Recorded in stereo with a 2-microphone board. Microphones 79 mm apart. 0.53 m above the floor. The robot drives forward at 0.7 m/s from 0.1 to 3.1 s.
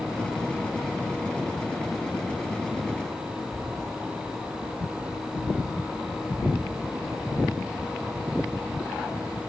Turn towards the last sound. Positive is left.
turn(degrees=30)  # may be behind; listen again after turning